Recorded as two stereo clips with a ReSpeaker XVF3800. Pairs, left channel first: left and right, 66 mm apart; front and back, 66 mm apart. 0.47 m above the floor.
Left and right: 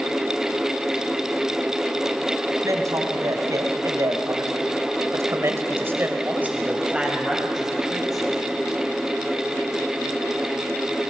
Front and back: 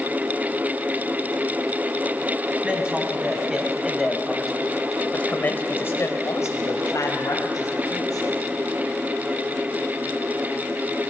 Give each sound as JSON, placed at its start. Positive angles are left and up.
{"t": 2.6, "sound": "a man speaking", "azimuth_deg": -105, "distance_m": 4.0}